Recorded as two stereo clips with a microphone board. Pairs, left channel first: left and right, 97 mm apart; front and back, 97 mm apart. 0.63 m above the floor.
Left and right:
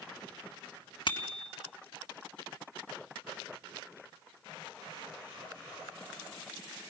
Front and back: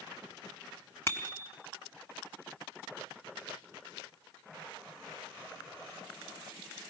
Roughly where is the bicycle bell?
Ahead left.